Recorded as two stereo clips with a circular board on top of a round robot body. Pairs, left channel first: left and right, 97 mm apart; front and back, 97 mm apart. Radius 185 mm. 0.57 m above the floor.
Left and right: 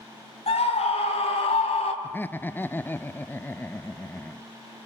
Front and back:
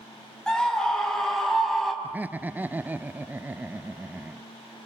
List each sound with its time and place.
0.5 s a scream: 85° left, 6 m; by 1.9 s 90° left, 5.5 m
2.0 s laughter: 130° left, 0.7 m